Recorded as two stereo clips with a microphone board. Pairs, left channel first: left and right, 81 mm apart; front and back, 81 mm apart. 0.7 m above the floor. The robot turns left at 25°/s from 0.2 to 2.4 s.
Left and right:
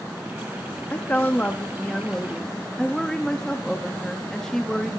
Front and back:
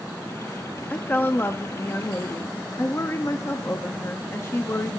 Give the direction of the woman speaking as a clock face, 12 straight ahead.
10 o'clock.